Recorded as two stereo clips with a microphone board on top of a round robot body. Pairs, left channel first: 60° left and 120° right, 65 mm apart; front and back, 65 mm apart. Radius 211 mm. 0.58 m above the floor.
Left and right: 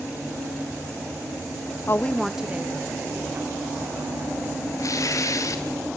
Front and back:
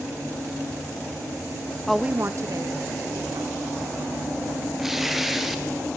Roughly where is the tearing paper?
Left.